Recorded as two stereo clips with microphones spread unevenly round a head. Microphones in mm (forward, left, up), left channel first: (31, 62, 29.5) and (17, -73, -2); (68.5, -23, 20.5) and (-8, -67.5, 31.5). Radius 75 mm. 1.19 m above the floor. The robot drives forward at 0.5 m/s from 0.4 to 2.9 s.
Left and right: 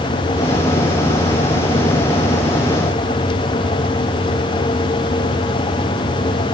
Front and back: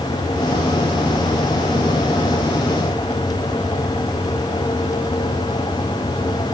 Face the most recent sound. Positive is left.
No sound to turn to.